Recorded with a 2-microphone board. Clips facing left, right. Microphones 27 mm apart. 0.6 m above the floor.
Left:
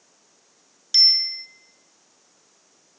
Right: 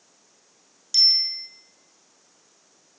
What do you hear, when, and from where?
0.9 s a bicycle bell: 35° left (ahead or behind), 5.5 m